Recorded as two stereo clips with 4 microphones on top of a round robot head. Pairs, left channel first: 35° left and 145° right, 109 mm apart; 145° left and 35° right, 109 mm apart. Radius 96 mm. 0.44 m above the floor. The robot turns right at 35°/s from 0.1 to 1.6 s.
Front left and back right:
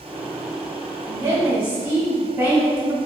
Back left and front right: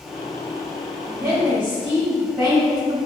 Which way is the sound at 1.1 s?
115° right.